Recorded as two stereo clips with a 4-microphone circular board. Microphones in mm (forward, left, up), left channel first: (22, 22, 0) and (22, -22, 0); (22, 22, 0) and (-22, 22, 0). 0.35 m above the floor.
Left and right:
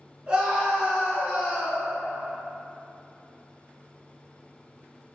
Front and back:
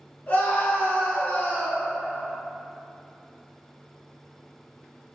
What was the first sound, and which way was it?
A scream, 40° right.